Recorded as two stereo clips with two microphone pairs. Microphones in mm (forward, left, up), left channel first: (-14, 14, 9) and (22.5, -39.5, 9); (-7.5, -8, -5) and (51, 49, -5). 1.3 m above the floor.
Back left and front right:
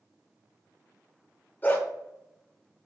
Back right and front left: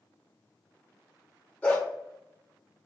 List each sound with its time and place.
1.6 s a dog barking: 160° left, 1.2 m